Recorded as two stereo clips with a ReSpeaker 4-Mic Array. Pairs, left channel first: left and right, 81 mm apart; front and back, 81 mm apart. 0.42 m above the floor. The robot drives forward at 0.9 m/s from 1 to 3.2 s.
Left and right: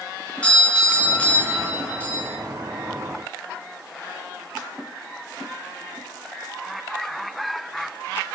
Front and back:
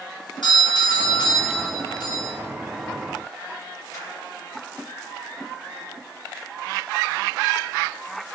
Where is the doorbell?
15° left, 6.5 m; by 2.3 s 20° left, 5.5 m.